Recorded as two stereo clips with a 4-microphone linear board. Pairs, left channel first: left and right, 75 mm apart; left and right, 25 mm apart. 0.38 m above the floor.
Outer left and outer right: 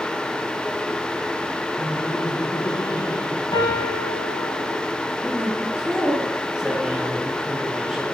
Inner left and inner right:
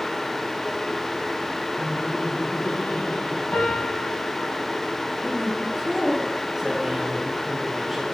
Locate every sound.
1.8 s laughter: 70° left (ahead or behind), 4.5 m
3.5 s a piano: 70° left (ahead or behind), 9.5 m
5.2 s a man speaking: 10° right (ahead or behind), 7 m